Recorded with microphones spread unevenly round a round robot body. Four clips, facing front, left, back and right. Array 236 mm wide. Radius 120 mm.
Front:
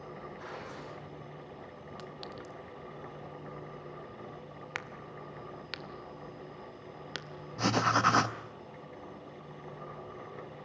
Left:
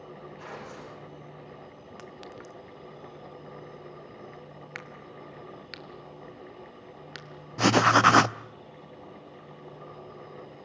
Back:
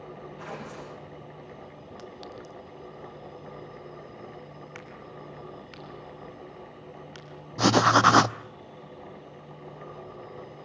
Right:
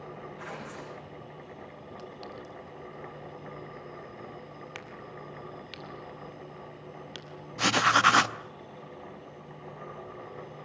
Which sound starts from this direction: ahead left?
A clink, at 2.0 s.